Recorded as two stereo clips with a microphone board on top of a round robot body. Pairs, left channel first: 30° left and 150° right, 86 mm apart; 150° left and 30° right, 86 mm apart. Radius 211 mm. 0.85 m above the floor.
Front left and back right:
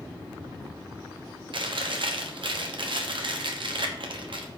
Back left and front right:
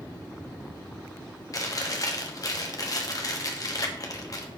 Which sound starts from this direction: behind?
Chewing, at 1.5 s.